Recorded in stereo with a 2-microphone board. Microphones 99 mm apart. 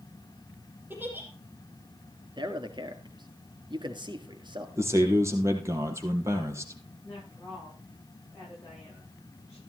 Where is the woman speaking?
20° left (ahead or behind), 9.5 m.